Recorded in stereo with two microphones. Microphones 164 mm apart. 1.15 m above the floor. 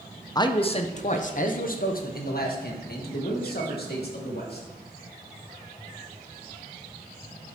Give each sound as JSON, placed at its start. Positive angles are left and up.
{"t": 0.3, "sound": "a man speaking", "side_deg": 25, "distance_m": 0.6}